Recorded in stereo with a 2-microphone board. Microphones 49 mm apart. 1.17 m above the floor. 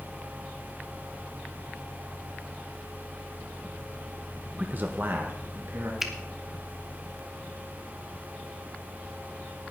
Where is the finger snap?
5° right (ahead or behind), 1.6 m.